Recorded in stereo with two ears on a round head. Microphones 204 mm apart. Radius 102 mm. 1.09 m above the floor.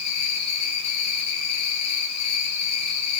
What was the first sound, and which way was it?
An insect, 80° left.